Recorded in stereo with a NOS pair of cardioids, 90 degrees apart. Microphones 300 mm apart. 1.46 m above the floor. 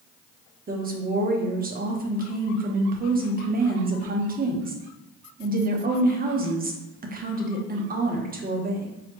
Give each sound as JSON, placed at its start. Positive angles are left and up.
{"t": 0.7, "sound": "a woman speaking", "azimuth_deg": -30, "distance_m": 1.0}